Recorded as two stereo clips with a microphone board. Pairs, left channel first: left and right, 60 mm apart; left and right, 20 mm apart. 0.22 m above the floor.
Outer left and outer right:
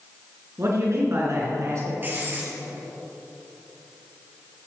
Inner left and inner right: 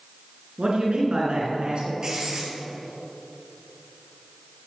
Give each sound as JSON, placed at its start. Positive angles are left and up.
{"t": 0.6, "sound": "a man speaking", "side_deg": -55, "distance_m": 3.5}
{"t": 2.0, "sound": "writing", "side_deg": -35, "distance_m": 3.5}